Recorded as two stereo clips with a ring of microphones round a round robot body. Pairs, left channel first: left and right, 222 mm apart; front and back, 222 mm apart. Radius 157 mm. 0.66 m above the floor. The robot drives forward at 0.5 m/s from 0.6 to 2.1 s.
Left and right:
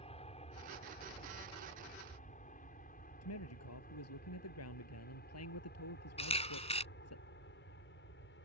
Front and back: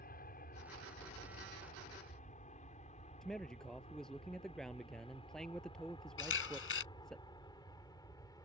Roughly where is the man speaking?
Left.